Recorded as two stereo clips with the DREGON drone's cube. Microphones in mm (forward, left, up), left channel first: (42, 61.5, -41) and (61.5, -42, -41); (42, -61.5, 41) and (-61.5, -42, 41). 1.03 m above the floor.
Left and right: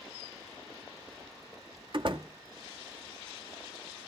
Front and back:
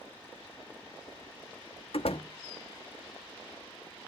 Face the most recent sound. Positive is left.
turn(degrees=-40)